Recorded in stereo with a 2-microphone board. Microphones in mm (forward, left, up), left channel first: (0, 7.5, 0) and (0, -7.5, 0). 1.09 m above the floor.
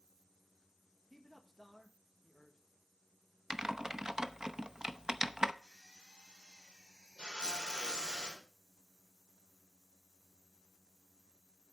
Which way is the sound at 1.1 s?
Centre (ahead or behind).